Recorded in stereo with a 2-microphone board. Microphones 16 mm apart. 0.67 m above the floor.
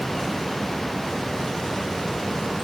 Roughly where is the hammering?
I don't hear hammering.